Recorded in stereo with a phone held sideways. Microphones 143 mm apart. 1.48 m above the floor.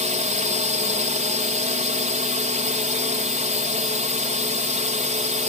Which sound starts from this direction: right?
A drone, at 0.0 s.